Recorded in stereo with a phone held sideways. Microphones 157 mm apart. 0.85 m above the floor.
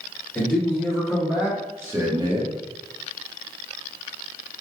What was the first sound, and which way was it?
A man speaking, 10° left (ahead or behind).